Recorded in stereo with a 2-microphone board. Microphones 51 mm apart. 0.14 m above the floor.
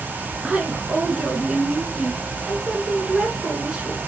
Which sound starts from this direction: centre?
A woman speaking, at 0.4 s.